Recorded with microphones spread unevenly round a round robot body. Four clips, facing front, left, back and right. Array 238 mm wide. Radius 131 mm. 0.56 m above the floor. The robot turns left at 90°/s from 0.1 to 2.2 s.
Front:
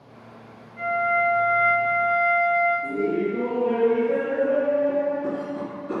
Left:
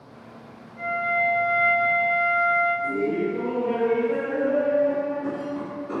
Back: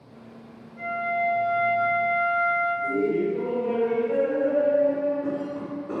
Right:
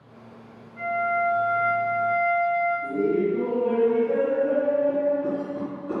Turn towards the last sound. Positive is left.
turn(degrees=-140)